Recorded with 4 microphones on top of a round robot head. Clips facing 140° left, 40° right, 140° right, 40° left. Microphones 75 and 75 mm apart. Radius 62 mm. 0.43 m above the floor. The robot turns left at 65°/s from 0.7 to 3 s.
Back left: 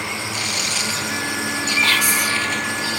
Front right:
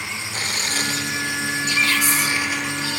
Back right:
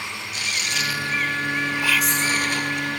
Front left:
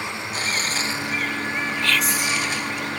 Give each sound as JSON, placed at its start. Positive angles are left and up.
{"t": 0.3, "sound": "tearing paper", "azimuth_deg": 0}
{"t": 1.8, "sound": "whispering", "azimuth_deg": 145}